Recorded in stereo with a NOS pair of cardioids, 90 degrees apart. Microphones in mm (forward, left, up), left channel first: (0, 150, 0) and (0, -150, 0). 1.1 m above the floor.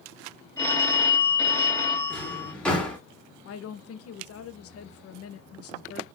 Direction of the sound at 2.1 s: 5° left.